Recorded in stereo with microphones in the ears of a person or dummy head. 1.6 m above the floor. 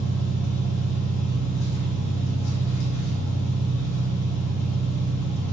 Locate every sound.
0.0 s an engine running: 60° left (ahead or behind), 3 m